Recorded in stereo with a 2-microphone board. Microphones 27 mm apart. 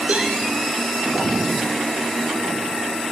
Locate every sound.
0.1 s a cowbell: 65° right (ahead or behind), 8.5 m